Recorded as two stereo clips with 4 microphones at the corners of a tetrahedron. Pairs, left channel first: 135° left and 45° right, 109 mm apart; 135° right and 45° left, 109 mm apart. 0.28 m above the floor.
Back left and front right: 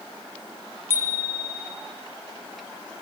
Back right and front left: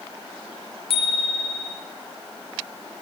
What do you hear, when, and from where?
0.9 s a bicycle bell: 115° right, 4 m